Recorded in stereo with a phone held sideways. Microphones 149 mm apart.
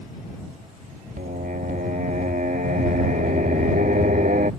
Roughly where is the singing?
Right.